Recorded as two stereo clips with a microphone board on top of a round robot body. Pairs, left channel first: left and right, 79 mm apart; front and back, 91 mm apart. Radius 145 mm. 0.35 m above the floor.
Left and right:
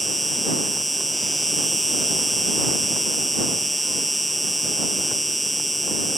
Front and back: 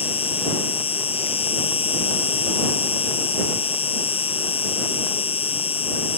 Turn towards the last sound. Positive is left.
turn(degrees=0)